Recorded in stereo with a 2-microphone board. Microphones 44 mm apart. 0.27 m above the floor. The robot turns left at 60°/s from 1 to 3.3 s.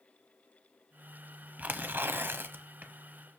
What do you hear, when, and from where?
1.6 s tearing paper: 45° right, 0.8 m; by 2.9 s 125° right, 0.8 m